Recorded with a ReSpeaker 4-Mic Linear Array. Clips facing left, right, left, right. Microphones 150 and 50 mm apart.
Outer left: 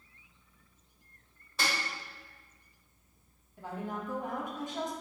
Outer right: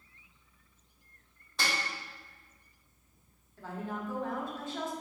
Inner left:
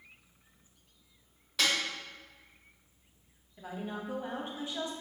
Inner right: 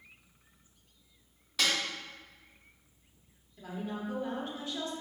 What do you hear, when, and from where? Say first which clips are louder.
1.6 s a snare drum: outer left 1 dB, inner left 1 dB; 5° left (ahead or behind), 1.7 m
3.6 s a woman speaking: even, inner right 1 dB; 15° left (ahead or behind), 0.6 m